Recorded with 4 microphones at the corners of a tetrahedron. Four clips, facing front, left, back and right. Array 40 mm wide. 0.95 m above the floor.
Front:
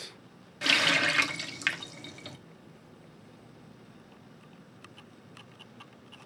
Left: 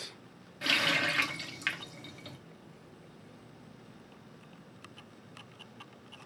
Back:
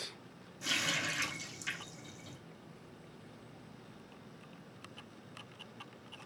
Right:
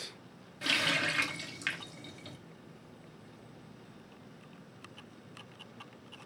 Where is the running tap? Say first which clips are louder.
Left 2 dB, front 10 dB; 10° left, 1.1 m.